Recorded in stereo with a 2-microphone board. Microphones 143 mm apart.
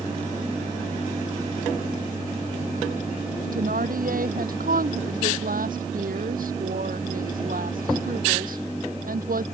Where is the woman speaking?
80° right.